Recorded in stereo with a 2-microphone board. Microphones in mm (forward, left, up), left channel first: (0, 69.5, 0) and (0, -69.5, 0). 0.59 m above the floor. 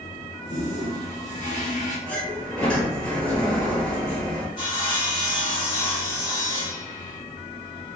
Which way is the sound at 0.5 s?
55° left (ahead or behind).